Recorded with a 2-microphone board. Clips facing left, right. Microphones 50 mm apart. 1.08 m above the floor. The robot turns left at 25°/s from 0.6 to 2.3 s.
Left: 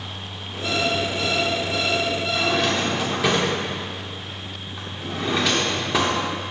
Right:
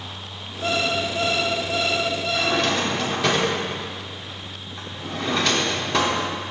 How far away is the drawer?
About 1.3 m.